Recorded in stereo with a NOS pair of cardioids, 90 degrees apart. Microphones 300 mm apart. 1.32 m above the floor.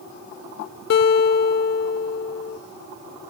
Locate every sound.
0.9 s a guitar: 55° left, 1.2 m